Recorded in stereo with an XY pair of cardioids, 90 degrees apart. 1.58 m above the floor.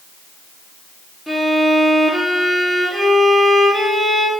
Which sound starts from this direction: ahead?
A violin, at 1.3 s.